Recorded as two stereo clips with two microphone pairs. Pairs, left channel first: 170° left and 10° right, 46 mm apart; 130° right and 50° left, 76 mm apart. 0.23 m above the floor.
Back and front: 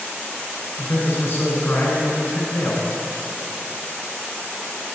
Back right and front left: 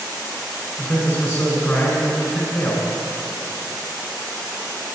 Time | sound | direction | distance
0.8 | a man speaking | 175° right | 2.5 m